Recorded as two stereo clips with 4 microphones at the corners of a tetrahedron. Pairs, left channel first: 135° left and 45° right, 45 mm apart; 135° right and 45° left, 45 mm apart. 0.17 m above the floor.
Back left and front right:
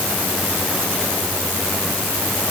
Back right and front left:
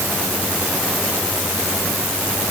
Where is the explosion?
No explosion in this recording.